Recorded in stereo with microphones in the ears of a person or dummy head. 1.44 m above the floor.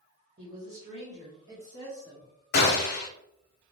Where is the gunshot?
55° left (ahead or behind), 0.9 m.